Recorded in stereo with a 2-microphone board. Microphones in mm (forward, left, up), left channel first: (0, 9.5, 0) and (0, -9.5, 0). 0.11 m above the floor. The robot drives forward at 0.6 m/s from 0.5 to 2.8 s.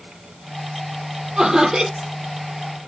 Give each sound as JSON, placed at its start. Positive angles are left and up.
{"t": 1.4, "sound": "laughter", "side_deg": -35, "distance_m": 3.0}